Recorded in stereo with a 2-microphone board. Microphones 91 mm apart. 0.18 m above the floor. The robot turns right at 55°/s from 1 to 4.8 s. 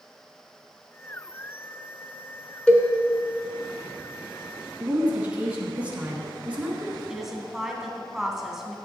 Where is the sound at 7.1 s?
5° right (ahead or behind), 1.1 m.